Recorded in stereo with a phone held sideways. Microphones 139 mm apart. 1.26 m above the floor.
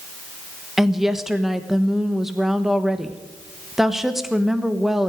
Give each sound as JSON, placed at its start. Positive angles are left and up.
{"t": 0.8, "sound": "a woman speaking", "side_deg": 0, "distance_m": 1.2}